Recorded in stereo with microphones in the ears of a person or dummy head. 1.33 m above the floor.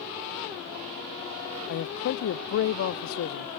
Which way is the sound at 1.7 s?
70° left (ahead or behind).